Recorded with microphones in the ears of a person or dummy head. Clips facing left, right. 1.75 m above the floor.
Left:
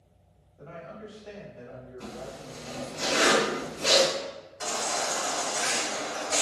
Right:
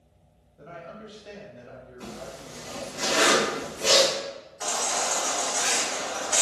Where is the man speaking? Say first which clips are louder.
Even; 20° right (ahead or behind), 1.1 m.